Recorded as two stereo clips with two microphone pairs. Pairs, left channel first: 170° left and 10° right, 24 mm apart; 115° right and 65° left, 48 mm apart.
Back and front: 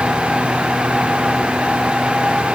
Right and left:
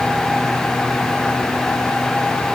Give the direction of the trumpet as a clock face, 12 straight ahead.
I don't hear a trumpet.